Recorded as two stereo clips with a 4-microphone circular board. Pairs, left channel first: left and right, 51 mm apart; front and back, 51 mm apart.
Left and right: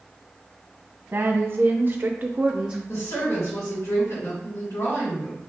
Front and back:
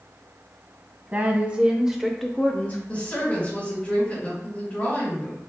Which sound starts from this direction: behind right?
A woman speaking, at 1.1 s.